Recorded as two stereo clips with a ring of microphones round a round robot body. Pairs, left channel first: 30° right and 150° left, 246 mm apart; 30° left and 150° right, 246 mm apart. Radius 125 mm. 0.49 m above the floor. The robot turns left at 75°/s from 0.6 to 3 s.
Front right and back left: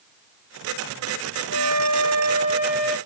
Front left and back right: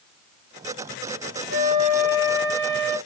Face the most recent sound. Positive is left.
turn(degrees=45)